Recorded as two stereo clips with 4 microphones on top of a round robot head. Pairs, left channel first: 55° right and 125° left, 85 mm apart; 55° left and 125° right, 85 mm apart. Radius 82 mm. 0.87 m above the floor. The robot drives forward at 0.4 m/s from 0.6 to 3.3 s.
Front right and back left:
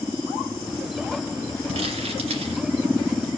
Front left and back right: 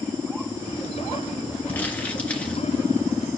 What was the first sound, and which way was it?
Crumpling, 125° left.